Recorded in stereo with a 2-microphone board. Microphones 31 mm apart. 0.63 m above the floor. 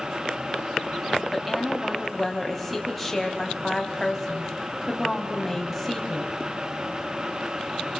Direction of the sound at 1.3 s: 5° left (ahead or behind).